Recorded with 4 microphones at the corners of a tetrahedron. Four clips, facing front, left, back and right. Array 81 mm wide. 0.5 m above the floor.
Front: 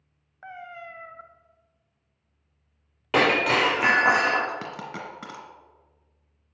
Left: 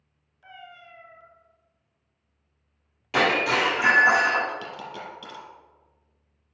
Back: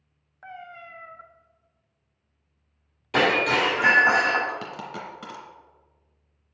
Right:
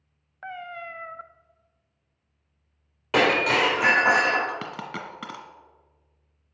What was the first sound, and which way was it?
A cat meowing, 80° right.